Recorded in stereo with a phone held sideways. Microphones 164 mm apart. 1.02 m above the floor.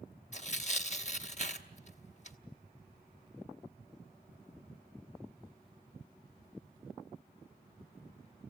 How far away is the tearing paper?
About 0.9 m.